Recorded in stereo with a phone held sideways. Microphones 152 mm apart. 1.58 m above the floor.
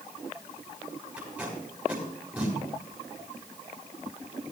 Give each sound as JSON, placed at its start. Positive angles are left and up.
{"t": 1.2, "sound": "tape being pulled", "side_deg": -10, "distance_m": 5.5}